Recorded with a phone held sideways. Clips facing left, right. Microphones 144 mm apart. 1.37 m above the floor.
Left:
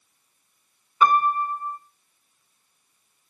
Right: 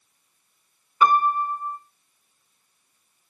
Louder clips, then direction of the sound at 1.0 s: Even; 5° right (ahead or behind).